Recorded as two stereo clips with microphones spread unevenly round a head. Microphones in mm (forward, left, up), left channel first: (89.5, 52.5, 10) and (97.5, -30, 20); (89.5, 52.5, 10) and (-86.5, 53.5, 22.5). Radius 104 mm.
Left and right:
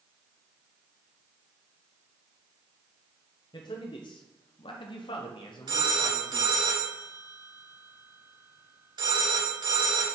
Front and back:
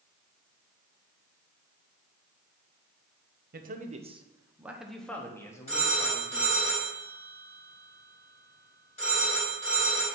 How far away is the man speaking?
About 1.0 m.